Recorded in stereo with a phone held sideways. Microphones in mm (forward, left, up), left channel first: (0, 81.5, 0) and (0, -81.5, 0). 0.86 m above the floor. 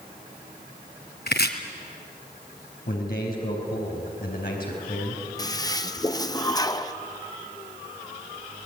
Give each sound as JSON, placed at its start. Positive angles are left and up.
{"t": 1.3, "sound": "chopping", "side_deg": 75, "distance_m": 2.0}
{"t": 2.9, "sound": "a man speaking", "side_deg": 65, "distance_m": 4.5}
{"t": 5.4, "sound": "a toilet flushing", "side_deg": 25, "distance_m": 0.9}